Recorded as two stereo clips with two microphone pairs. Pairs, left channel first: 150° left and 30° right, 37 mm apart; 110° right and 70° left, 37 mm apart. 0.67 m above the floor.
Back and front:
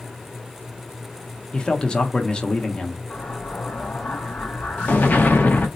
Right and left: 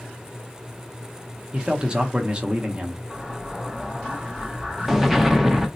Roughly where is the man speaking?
Left.